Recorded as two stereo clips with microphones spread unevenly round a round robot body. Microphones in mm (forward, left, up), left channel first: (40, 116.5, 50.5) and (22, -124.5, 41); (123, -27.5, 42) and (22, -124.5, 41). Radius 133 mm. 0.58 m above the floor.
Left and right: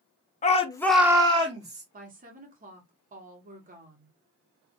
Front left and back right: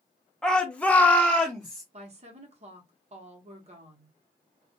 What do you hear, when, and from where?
0.4 s a shout: 125° left, 0.6 m; by 1.8 s 40° right, 1.1 m
1.9 s a woman speaking: 135° right, 1.0 m